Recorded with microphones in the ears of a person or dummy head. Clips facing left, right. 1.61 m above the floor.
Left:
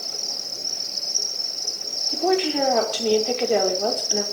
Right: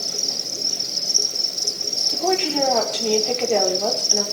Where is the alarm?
I don't hear an alarm.